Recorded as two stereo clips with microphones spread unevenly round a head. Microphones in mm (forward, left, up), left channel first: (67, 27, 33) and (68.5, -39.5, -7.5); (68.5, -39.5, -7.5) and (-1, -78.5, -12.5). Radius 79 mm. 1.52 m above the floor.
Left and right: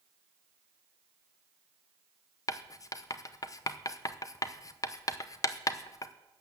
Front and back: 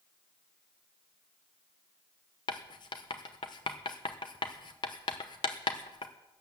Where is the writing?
80° left, 0.8 m.